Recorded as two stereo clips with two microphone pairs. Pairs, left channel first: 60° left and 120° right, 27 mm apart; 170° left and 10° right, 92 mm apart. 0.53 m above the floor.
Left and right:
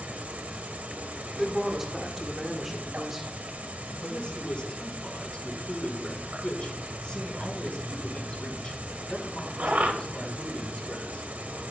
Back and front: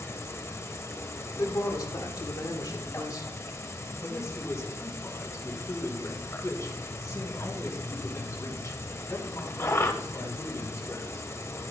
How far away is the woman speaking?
About 1.6 m.